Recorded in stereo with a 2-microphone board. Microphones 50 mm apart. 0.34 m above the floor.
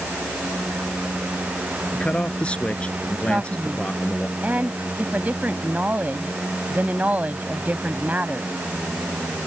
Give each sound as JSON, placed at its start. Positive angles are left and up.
{"t": 1.9, "sound": "a man speaking", "side_deg": 20}
{"t": 3.3, "sound": "a man speaking", "side_deg": -35}